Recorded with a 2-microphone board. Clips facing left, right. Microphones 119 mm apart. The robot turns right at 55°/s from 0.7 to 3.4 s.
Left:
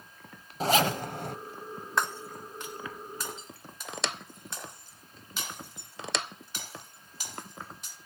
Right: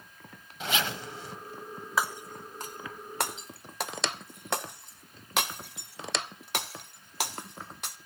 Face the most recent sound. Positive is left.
turn(degrees=-80)